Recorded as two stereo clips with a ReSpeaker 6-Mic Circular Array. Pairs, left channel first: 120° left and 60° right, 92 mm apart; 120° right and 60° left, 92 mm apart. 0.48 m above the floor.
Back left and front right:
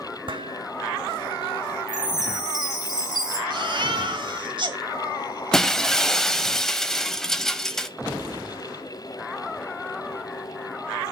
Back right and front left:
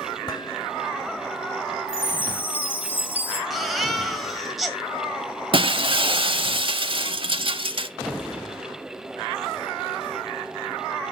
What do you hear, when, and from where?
0.3 s dishes clattering: 80° right, 1.2 m
1.9 s a chime: 60° right, 1.6 m
3.5 s a baby crying: 30° right, 1.3 m
5.5 s breaking glass: 35° left, 0.6 m